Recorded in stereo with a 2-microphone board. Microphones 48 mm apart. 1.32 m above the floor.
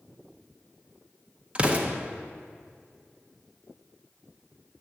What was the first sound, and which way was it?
An explosion, 25° right (ahead or behind).